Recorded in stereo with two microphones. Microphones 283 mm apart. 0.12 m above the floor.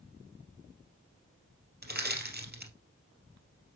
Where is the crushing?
35° right (ahead or behind), 2.5 m.